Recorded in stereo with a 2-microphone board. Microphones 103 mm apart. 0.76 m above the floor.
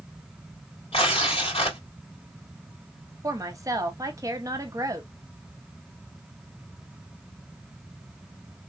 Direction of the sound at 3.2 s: 35° right (ahead or behind).